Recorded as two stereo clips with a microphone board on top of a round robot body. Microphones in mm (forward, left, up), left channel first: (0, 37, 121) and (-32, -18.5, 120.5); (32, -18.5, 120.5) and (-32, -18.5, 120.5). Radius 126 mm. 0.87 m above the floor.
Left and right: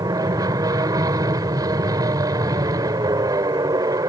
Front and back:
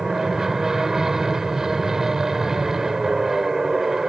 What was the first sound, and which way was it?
An aircraft, 95° right.